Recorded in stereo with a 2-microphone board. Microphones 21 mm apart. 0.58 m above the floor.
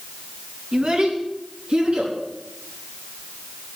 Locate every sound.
0.7 s a child speaking: 50° right (ahead or behind), 4 m; by 2.1 s 55° right (ahead or behind), 5.5 m